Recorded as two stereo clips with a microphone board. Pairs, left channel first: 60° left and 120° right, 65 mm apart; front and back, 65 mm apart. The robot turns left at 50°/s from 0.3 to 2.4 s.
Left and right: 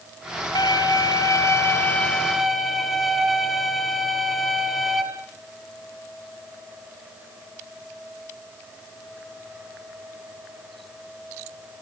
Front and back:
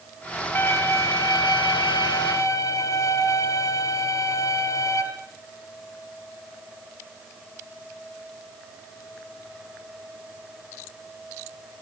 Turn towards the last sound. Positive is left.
turn(degrees=-30)